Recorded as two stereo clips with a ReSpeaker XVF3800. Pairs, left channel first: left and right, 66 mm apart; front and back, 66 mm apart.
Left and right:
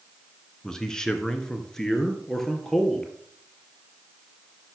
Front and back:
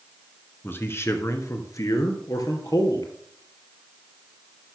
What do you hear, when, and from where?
0.6 s a man speaking: 15° left, 1.5 m; by 3.1 s 5° left, 3 m